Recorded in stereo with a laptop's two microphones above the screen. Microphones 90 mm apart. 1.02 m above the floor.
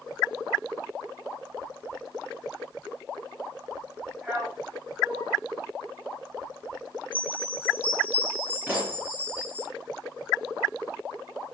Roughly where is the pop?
Centre.